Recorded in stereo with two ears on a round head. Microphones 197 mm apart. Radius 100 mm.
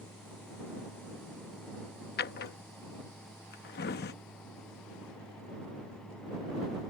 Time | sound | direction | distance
2.2 | a drawer | 50° left (ahead or behind) | ?